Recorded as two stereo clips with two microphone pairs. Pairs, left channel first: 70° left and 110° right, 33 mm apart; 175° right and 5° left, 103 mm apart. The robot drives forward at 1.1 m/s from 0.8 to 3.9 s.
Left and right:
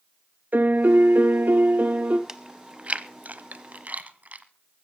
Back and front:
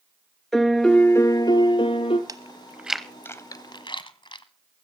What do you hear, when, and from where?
0.5 s a piano: 85° right, 0.9 m; by 2.2 s 150° right, 1.7 m
2.3 s chewing: 40° right, 1.2 m; by 4.5 s 145° right, 1.3 m